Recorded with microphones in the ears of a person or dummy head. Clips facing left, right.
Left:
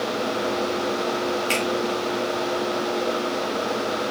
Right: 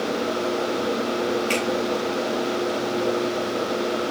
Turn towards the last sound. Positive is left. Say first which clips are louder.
# right 1 dB
turn(degrees=15)  # may be behind; listen again after turning